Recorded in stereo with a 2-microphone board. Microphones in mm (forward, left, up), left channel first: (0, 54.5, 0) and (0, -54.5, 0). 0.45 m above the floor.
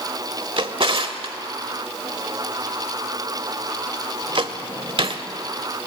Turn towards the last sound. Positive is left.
turn(degrees=-60)  # may be behind; listen again after turning